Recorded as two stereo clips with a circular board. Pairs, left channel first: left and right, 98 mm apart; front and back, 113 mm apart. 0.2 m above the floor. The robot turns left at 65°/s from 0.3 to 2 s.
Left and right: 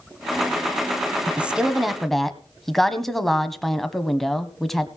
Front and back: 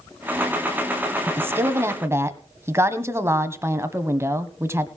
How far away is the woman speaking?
About 1.1 m.